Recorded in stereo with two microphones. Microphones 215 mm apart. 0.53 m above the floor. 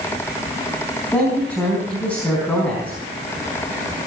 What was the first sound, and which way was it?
A man speaking, 5° left (ahead or behind).